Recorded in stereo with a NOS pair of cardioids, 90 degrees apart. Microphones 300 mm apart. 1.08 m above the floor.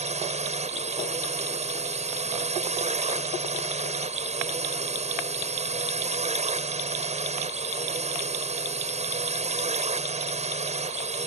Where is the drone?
25° right.